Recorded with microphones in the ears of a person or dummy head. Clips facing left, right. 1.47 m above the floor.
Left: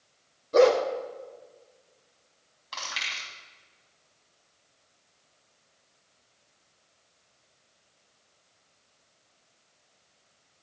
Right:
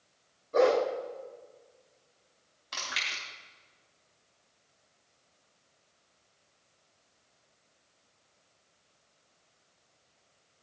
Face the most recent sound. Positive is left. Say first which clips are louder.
# left 1 dB
turn(degrees=-25)  # may be behind; listen again after turning